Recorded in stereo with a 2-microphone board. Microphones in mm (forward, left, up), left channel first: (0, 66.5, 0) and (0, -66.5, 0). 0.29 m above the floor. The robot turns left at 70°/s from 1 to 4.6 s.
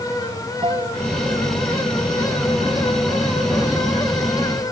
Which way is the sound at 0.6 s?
40° right (ahead or behind).